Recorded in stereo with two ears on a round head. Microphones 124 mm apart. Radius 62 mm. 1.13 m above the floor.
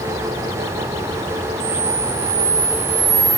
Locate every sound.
1.6 s a camera shutter: 25° right (ahead or behind), 5.5 m